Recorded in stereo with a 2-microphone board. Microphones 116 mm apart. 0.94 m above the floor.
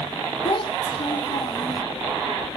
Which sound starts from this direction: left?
A child speaking, at 0.5 s.